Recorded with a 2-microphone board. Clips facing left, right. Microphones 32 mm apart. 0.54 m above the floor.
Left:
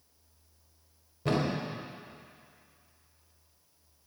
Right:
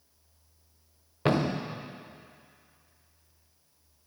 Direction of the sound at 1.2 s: 70° right (ahead or behind).